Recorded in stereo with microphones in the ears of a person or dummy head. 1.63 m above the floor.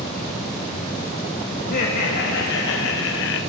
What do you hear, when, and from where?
1.6 s laughter: 50° left (ahead or behind), 2.5 m; by 3.4 s 70° left (ahead or behind), 1.4 m